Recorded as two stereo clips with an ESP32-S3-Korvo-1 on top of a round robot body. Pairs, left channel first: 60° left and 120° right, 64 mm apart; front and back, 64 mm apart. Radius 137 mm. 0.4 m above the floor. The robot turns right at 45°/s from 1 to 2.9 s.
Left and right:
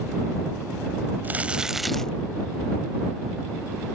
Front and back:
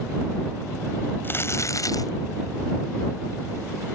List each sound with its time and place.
1.2 s crumpling: 60° right; by 2.1 s 20° right